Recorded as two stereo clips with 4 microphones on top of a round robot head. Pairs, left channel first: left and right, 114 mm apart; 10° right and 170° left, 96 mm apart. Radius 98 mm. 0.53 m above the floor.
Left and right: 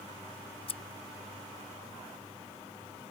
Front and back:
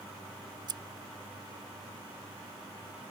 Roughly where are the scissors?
Behind left.